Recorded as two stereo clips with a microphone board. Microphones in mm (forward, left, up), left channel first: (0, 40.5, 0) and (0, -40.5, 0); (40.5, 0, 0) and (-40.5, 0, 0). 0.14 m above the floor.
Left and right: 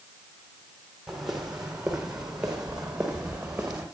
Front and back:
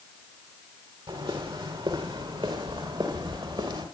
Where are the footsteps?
175° right, 5.5 m; by 3.9 s 170° right, 6.5 m.